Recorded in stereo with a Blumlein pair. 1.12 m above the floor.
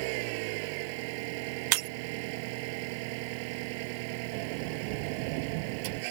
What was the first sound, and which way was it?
An engine running, 45° right.